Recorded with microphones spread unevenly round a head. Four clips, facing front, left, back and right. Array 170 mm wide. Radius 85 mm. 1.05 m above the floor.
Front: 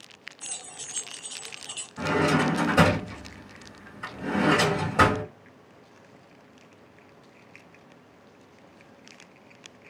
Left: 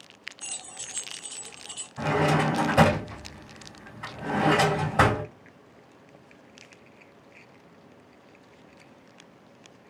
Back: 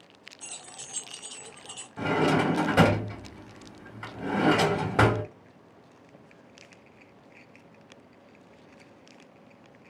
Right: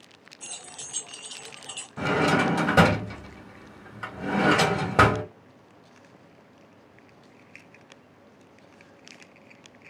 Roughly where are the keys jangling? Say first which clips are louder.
Right 4 dB, even; right.